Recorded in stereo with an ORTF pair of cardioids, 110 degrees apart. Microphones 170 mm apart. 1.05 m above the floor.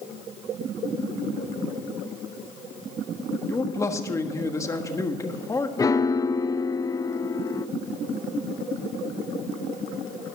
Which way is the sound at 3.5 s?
20° left.